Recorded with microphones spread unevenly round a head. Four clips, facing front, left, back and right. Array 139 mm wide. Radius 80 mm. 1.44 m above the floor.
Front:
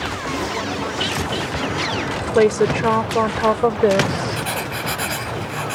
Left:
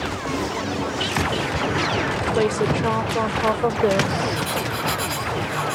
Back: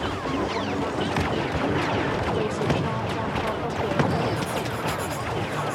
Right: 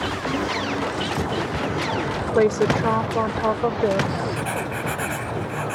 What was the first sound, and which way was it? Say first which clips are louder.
A woman speaking: right 4 dB, front 9 dB; 15° right.